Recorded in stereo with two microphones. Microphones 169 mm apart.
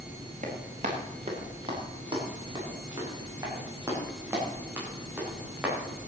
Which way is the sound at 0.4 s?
45° right (ahead or behind).